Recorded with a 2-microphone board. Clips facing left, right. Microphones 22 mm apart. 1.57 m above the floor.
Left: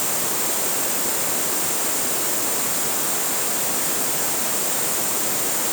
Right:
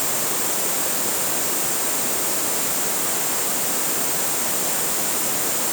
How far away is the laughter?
No laughter in this recording.